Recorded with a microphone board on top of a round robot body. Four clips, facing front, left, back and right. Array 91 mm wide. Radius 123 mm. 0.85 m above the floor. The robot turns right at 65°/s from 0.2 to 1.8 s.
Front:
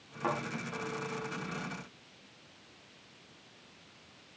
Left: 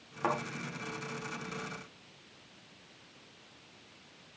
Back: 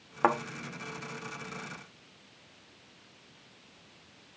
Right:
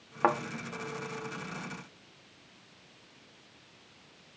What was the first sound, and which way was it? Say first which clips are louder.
A thud: right 5 dB, back 7 dB; 140° right.